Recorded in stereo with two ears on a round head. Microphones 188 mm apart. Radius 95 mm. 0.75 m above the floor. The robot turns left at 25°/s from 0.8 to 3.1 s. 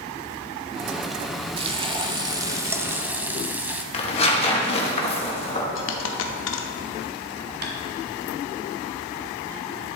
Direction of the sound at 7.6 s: 50° right (ahead or behind).